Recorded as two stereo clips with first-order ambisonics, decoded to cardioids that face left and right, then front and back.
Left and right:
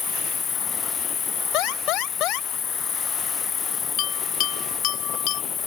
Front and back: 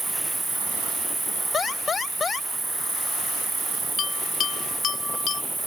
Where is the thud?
No thud in this recording.